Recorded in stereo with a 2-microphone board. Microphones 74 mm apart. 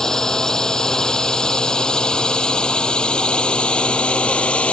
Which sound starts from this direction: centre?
A drone, at 0.0 s.